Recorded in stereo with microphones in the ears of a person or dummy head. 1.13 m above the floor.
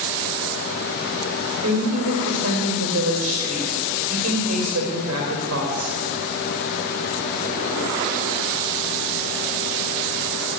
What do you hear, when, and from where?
1.6 s a woman speaking: 80° right, 3 m